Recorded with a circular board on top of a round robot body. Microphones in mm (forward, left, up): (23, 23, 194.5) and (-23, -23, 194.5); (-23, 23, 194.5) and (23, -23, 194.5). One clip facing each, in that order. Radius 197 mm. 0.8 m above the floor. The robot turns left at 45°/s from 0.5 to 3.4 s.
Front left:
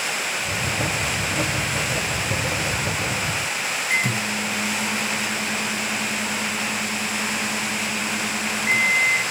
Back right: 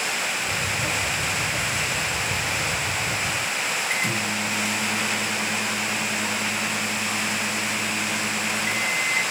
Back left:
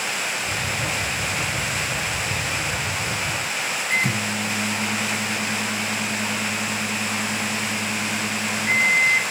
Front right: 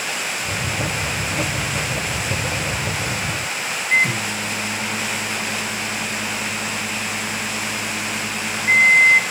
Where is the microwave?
115° left, 1.6 m.